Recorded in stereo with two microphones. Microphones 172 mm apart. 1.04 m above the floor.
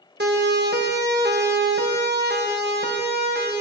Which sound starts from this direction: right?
A siren, at 0.2 s.